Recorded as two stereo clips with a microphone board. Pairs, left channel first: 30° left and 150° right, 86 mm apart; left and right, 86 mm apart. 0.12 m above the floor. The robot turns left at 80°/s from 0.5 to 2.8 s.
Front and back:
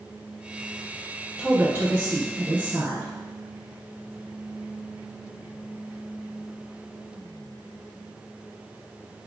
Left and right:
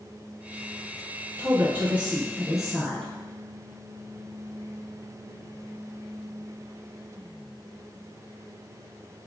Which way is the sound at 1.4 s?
85° right.